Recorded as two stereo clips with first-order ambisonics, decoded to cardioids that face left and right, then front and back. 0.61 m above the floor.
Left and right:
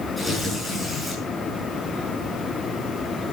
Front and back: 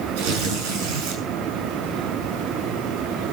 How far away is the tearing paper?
About 7 m.